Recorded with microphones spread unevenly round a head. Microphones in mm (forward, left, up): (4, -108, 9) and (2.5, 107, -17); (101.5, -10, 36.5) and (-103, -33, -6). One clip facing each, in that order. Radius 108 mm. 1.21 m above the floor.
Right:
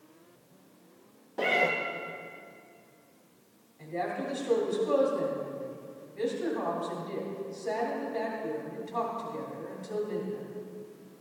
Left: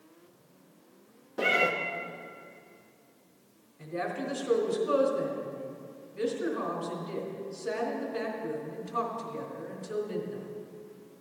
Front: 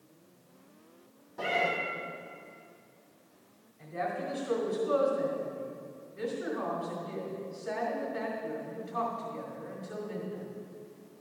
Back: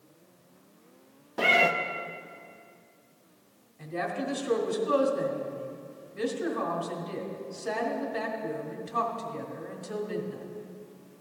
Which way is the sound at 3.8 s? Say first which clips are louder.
Even, back 3 dB; 165° left.